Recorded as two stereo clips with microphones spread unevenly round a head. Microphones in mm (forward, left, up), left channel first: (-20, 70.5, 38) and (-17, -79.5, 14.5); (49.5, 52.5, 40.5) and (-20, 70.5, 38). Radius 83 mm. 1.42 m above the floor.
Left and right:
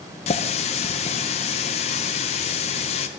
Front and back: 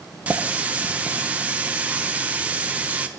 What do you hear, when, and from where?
0.3 s a running tap: 100° left, 0.6 m